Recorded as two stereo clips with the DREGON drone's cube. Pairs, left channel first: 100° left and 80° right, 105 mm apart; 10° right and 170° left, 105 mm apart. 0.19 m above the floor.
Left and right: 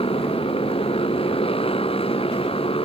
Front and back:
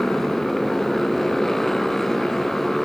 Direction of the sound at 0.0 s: 75° left.